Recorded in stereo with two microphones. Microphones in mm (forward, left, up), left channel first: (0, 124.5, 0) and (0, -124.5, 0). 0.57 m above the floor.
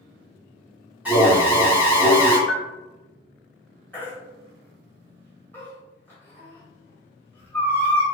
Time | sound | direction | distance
1.1 | an alarm | 5° right (ahead or behind) | 0.9 m
2.5 | a bell | 40° left (ahead or behind) | 0.5 m
3.9 | a baby crying | 10° left (ahead or behind) | 1.0 m